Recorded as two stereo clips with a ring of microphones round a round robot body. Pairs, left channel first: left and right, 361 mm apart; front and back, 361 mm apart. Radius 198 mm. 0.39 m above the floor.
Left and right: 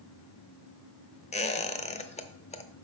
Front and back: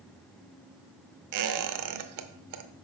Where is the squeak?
160° left, 0.7 m.